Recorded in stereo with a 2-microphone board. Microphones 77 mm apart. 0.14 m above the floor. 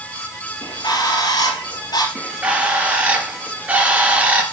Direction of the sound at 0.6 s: 65° left (ahead or behind).